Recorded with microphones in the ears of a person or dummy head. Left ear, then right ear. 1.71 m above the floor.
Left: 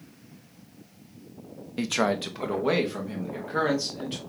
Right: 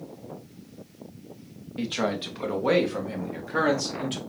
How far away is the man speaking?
About 0.5 m.